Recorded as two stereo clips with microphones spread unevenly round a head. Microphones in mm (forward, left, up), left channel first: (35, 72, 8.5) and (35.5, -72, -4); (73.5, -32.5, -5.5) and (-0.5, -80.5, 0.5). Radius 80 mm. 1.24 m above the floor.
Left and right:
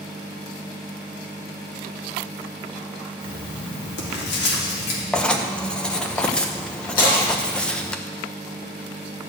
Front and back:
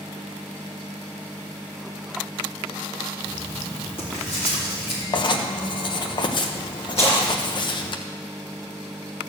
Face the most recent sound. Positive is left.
turn(degrees=105)